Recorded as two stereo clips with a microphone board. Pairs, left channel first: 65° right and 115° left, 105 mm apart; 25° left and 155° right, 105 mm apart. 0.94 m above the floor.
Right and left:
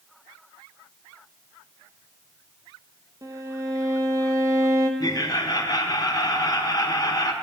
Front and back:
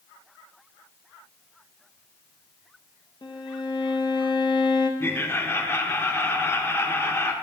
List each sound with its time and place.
3.2 s a violin: 60° left, 0.7 m
5.0 s laughter: 35° right, 0.7 m